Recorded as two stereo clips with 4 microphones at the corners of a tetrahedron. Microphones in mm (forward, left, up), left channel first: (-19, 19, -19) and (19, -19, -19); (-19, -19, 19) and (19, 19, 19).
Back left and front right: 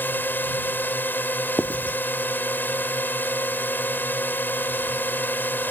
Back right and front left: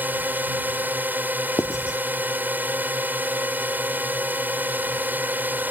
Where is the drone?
90° left.